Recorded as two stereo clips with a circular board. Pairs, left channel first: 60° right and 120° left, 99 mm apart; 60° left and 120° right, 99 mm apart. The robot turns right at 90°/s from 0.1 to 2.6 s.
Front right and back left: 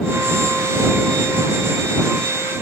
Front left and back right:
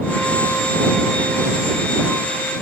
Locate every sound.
Only background noise.